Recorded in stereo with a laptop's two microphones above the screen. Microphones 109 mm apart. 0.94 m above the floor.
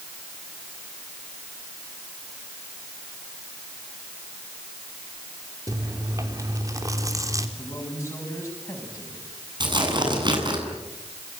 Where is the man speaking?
25° left (ahead or behind), 7 m.